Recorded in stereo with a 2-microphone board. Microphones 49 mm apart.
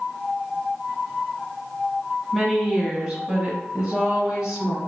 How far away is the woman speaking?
About 1.0 m.